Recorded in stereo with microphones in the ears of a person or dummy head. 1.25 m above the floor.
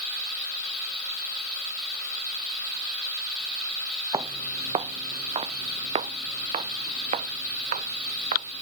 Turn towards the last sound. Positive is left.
turn(degrees=-35)  # may be behind; listen again after turning